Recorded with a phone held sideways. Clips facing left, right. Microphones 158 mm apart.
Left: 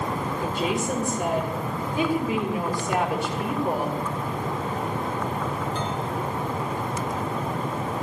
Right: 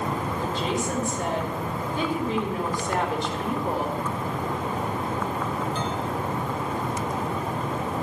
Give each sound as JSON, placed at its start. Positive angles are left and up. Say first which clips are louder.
{"t": 0.4, "sound": "a woman speaking", "louder": "left 2 dB", "side_deg": 10, "distance_m": 4.0}